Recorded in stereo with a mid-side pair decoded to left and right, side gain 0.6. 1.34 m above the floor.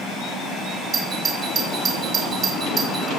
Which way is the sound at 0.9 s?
40° right.